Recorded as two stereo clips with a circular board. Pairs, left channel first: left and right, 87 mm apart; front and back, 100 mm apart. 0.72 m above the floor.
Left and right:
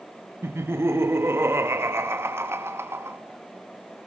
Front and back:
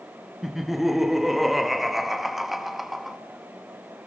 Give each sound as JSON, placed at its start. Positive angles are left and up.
{"t": 0.4, "sound": "laughter", "azimuth_deg": -90, "distance_m": 1.2}